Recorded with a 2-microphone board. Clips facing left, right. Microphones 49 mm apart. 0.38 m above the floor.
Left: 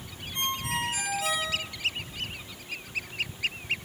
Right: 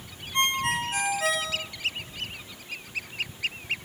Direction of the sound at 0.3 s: 50° right (ahead or behind).